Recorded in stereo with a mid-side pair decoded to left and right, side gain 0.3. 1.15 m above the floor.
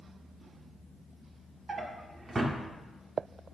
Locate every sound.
1.7 s a drawer: 45° right, 1.6 m